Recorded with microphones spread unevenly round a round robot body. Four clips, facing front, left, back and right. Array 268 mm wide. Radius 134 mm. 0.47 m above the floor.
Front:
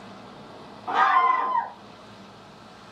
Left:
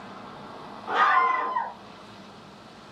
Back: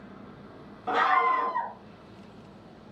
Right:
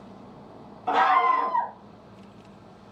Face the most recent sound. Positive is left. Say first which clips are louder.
# right 1 dB, front 4 dB
turn(degrees=-135)